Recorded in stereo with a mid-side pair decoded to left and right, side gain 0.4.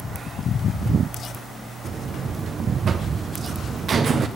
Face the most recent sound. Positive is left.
turn(degrees=-55)